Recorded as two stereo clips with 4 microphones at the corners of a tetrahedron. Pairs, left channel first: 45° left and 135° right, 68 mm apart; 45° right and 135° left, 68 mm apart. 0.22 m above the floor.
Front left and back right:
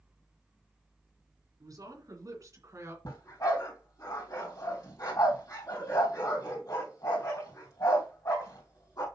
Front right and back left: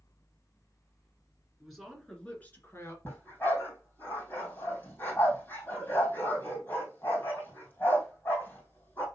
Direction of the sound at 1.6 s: 140° right.